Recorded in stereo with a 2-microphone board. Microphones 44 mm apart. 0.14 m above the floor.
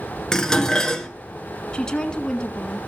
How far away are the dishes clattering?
About 1.2 m.